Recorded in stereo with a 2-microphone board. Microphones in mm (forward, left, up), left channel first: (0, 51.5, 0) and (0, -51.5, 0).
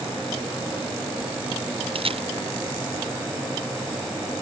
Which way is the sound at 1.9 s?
60° right (ahead or behind).